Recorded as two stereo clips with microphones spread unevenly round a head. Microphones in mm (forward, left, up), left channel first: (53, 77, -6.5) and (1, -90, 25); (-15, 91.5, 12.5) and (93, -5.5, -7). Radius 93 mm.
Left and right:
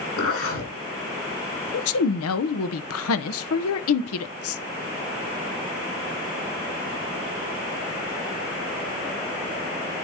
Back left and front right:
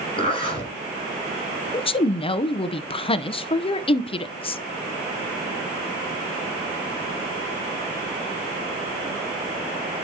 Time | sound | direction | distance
0.2 | a zipper | 85° left | 6.5 m
1.7 | a woman speaking | 85° left | 0.7 m